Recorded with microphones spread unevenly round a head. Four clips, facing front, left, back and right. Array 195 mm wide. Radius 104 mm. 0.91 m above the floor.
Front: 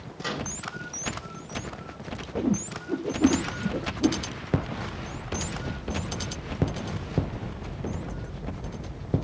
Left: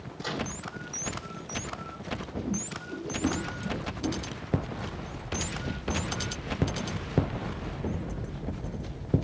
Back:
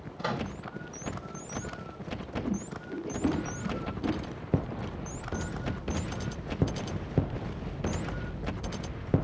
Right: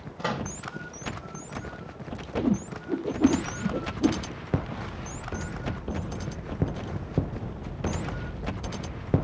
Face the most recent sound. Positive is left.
turn(degrees=-45)